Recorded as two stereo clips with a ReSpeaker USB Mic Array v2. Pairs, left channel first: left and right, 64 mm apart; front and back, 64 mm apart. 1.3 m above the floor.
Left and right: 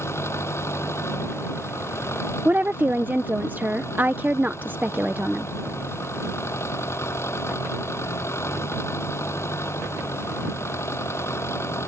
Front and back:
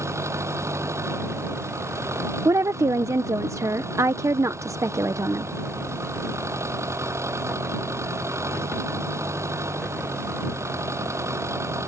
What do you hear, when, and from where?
0.0 s an engine running: 135° left
2.5 s a woman speaking: 150° right